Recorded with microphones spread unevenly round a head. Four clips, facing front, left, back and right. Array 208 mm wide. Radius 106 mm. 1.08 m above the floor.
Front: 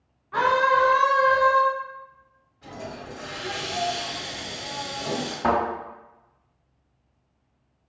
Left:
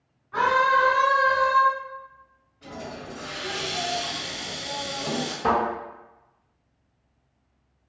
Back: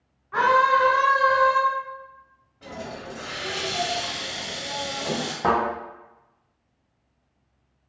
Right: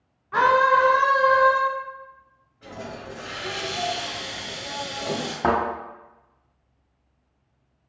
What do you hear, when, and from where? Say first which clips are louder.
0.3 s a scream: right 3 dB, back 1 dB; 90° right, 0.6 m; by 1.6 s 40° right, 1.0 m
2.6 s a hiss: right 1 dB, back 1 dB; straight behind, 1.5 m
5.4 s a thud: right 1 dB, back 1 dB; 105° right, 2.0 m